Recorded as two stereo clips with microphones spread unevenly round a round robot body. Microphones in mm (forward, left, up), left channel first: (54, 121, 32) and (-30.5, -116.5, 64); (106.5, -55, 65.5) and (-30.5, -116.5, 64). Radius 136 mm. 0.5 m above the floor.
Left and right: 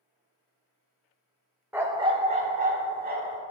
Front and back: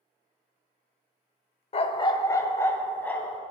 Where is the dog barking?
25° right, 0.5 m; by 3.4 s 55° right, 1.3 m.